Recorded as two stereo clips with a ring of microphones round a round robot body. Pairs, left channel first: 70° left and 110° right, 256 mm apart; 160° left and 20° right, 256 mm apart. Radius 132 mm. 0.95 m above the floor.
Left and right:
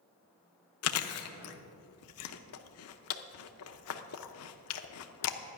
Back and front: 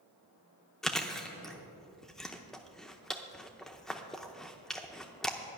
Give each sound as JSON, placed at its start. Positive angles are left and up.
{"t": 0.8, "sound": "chewing", "azimuth_deg": 70, "distance_m": 0.7}